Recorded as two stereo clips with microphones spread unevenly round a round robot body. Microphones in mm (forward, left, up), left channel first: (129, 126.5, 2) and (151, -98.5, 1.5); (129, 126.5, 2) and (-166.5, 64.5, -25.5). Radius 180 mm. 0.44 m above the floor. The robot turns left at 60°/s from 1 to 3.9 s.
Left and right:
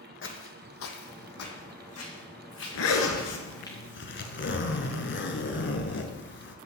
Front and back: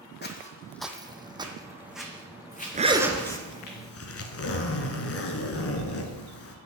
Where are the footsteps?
65° left, 1.3 m; by 3.7 s 20° left, 3.5 m.